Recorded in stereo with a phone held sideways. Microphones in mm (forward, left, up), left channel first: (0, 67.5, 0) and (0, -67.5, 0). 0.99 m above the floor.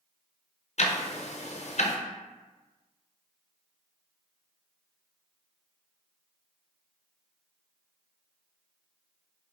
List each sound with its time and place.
0.8 s ticking: 55° left (ahead or behind), 0.6 m